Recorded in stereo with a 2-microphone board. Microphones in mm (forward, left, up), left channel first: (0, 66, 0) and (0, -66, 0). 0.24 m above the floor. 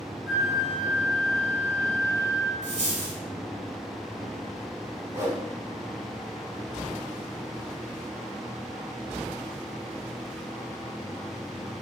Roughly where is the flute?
Right.